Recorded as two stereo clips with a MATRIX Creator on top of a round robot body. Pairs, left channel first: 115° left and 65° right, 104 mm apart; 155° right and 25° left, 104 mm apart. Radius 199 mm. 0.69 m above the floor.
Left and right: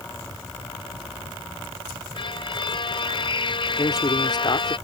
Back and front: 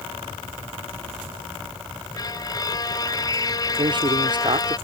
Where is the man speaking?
65° left.